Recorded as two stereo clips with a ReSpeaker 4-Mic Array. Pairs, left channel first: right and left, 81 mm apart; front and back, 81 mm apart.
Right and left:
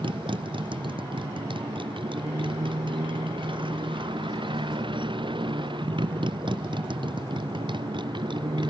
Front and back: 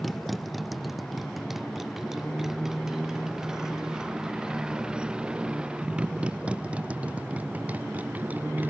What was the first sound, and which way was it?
A motorcycle, 90° left.